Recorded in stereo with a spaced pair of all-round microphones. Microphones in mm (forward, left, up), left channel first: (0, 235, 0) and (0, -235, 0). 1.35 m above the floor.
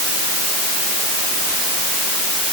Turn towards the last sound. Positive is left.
No sound to turn to.